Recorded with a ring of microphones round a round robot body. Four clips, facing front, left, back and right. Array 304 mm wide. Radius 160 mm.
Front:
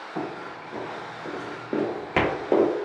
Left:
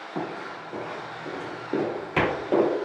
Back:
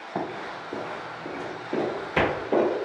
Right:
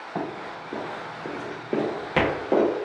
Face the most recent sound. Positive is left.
turn(degrees=-20)